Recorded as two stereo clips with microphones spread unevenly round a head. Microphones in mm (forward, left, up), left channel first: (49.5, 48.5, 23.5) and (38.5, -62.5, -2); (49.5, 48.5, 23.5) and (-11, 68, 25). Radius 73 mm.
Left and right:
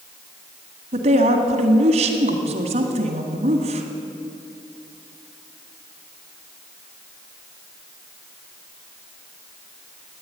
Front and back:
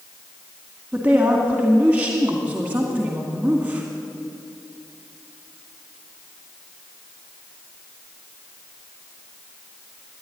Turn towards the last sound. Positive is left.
turn(degrees=-120)